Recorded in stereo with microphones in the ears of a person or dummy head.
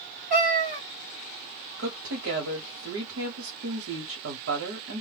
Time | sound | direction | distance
0.3 | a cat meowing | 45° right (ahead or behind) | 1.2 m
1.8 | a woman speaking | 85° right | 1.0 m